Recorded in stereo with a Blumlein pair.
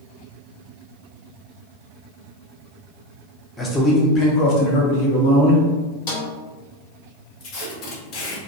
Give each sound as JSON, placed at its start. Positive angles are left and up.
{"t": 3.6, "sound": "a man speaking", "azimuth_deg": 5, "distance_m": 0.8}
{"t": 6.1, "sound": "a snare drum", "azimuth_deg": 55, "distance_m": 0.9}
{"t": 7.4, "sound": "tape being pulled", "azimuth_deg": 40, "distance_m": 0.8}